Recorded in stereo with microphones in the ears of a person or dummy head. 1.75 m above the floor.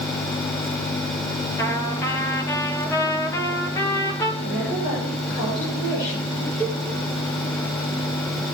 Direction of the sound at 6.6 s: 15° left (ahead or behind).